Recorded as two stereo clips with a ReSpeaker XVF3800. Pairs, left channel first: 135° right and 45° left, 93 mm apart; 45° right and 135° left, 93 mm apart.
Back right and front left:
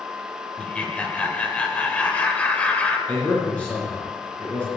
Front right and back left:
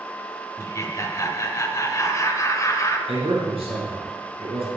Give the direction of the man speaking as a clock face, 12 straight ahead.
7 o'clock.